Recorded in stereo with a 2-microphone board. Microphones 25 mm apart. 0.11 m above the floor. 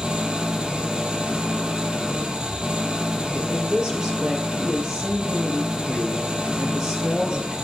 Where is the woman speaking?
25° right (ahead or behind), 2.5 m.